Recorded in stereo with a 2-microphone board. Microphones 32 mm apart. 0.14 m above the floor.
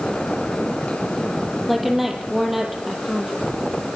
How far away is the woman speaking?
About 5.5 m.